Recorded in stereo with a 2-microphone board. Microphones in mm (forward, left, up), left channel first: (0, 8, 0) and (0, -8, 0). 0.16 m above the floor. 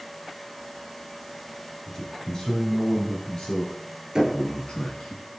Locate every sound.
1.9 s a man speaking: 30° left (ahead or behind), 3 m; by 5.2 s 70° left (ahead or behind), 4 m
4.2 s knocking: 35° right (ahead or behind), 1.9 m